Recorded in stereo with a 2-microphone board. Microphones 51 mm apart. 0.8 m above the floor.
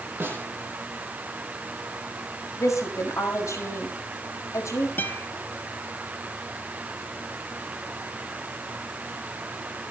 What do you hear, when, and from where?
0.2 s a snare drum: 40° right (ahead or behind), 9.5 m
2.6 s a woman speaking: 75° left (ahead or behind), 5.5 m
5.0 s a guitar: 40° left (ahead or behind), 1.8 m